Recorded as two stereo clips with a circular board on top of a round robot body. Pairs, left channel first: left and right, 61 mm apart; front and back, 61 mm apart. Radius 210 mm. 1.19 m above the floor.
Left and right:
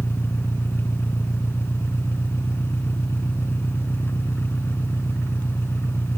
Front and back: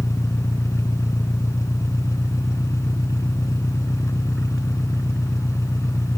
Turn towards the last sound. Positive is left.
turn(degrees=35)